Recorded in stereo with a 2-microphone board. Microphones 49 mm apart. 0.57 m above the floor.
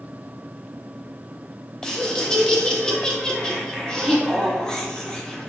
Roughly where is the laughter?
Centre.